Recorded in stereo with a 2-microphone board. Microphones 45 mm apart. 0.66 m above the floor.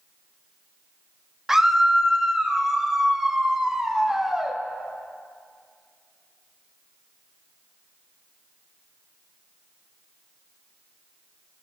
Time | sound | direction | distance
1.5 | a scream | 10° right (ahead or behind) | 0.8 m